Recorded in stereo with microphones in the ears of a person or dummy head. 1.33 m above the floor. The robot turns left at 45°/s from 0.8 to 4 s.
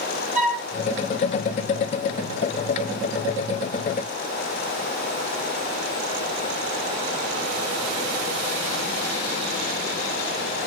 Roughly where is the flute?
Centre.